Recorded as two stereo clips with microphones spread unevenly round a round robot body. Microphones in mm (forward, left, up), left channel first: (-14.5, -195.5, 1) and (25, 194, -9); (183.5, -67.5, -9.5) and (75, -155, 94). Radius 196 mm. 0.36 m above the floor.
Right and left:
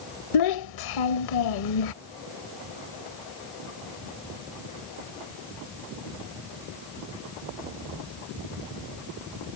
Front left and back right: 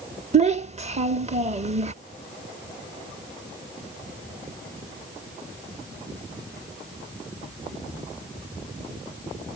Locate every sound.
0.3 s a child speaking: 75° right